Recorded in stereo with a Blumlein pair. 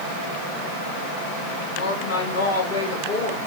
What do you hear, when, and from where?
1.7 s a woman speaking: 65° left, 2.5 m